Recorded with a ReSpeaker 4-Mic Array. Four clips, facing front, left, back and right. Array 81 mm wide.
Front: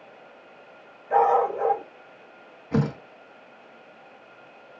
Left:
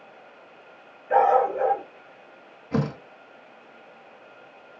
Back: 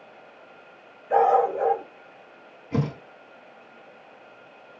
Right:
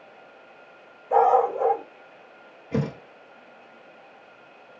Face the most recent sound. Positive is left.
turn(degrees=35)